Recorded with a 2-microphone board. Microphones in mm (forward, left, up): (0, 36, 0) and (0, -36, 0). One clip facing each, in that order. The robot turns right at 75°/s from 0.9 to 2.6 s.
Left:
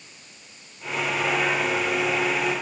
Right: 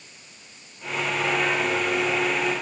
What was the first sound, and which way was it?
Only background noise.